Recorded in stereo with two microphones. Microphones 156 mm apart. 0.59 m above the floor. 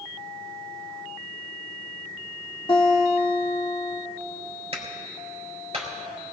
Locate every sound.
2.7 s a guitar: 30° left (ahead or behind), 1.9 m
4.7 s a clap: 40° right (ahead or behind), 4 m